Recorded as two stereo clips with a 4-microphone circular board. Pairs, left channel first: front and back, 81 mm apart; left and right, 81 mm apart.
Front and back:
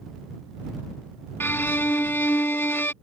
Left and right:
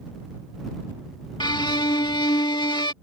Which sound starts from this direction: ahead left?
A violin, at 1.4 s.